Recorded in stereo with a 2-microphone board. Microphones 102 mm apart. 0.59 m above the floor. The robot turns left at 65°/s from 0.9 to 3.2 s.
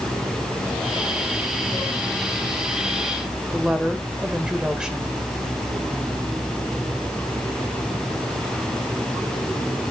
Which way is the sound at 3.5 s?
10° right (ahead or behind).